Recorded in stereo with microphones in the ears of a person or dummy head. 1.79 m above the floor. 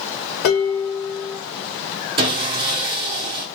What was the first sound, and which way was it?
Dishes clattering, 50° left (ahead or behind).